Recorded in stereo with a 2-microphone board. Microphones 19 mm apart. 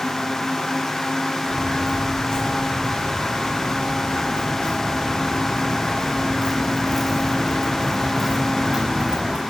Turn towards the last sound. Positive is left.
turn(degrees=-35)  # may be behind; listen again after turning